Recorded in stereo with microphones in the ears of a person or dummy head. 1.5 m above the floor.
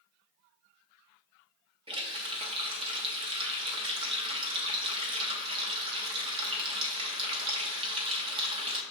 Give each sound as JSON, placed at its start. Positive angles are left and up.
{"t": 1.9, "sound": "a running tap", "side_deg": -25, "distance_m": 0.6}